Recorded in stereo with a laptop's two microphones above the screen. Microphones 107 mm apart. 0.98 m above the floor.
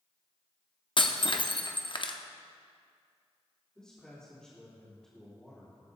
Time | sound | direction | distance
1.0 | breaking glass | 50° left (ahead or behind) | 0.6 m
3.8 | a man speaking | 10° left (ahead or behind) | 3 m